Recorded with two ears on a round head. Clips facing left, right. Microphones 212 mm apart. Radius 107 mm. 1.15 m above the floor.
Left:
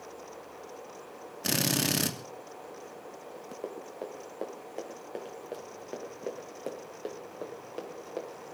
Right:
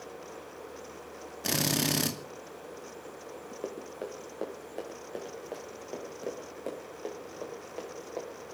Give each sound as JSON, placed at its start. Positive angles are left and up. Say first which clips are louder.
{"t": 1.4, "sound": "a drill", "louder": "even", "side_deg": 5, "distance_m": 2.0}
{"t": 3.6, "sound": "running footsteps", "louder": "right 1 dB", "side_deg": -10, "distance_m": 4.5}